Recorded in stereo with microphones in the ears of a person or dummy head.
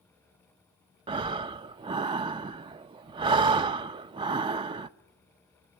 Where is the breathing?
25° right (ahead or behind), 0.5 m.